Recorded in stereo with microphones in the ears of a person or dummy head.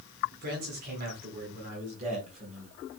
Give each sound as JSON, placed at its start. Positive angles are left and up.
{"t": 0.4, "sound": "a man speaking", "side_deg": -50, "distance_m": 4.5}